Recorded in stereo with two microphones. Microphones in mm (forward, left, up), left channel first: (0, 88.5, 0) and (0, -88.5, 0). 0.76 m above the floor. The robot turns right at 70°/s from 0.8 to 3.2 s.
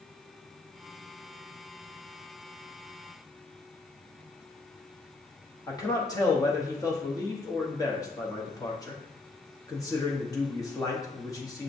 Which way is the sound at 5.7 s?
20° left (ahead or behind).